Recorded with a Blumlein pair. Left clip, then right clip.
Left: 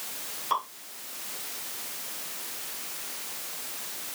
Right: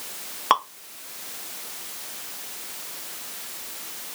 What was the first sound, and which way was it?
Dripping, 50° right.